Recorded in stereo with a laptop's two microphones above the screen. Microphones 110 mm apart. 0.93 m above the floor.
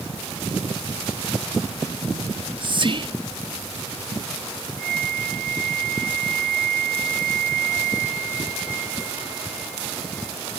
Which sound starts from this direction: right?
Whispering, at 2.3 s.